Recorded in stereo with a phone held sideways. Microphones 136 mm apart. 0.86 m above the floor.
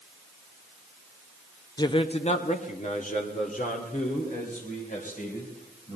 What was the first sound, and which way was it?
A man speaking, 25° left (ahead or behind).